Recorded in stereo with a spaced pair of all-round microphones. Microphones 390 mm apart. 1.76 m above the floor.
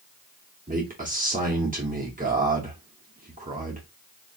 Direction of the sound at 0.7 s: 20° right (ahead or behind).